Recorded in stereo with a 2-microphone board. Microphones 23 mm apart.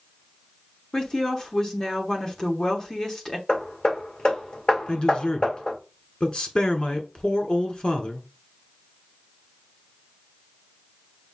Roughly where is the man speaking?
Left.